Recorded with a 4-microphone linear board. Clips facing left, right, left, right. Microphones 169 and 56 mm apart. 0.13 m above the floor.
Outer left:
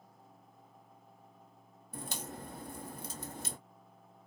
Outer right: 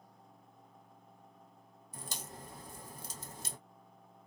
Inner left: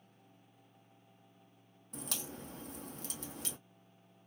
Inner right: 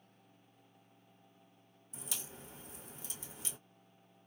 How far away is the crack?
About 1.4 m.